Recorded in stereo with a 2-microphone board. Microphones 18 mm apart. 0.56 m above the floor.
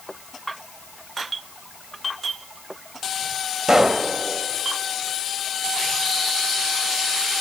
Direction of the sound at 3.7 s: 30° right (ahead or behind).